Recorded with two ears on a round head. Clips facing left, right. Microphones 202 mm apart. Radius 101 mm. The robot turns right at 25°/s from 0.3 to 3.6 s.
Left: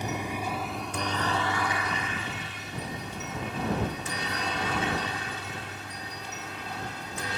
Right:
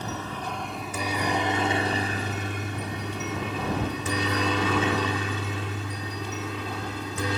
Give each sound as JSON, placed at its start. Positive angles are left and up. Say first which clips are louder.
{"t": 0.0, "sound": "a helicopter", "louder": "left 1 dB", "side_deg": 15}